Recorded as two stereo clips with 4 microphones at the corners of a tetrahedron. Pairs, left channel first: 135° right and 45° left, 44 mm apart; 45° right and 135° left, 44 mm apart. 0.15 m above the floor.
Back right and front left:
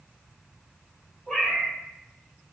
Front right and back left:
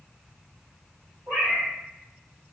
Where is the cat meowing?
145° left, 1.9 m.